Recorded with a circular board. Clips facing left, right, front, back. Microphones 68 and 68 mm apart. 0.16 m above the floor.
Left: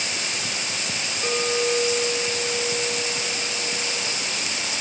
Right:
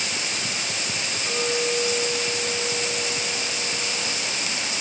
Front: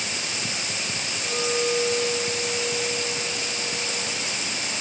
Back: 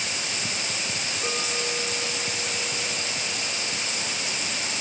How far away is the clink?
About 9 m.